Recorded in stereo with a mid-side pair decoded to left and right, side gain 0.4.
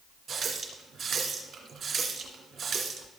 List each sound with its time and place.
0.3 s a running tap: 55° right, 2.5 m